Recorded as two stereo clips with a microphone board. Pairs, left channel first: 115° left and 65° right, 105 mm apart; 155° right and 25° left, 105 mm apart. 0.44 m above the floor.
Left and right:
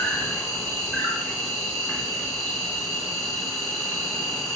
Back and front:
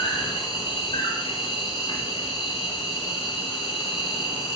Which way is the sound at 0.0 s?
165° right.